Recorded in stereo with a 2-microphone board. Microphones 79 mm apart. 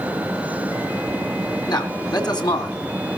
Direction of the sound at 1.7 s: 60° left (ahead or behind).